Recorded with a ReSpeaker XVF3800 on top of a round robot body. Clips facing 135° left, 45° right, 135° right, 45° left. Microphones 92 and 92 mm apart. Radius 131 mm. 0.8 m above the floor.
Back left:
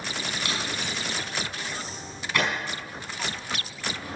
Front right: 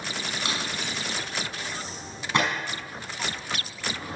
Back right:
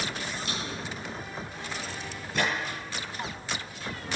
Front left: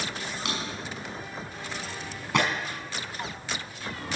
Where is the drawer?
20° left, 5 m.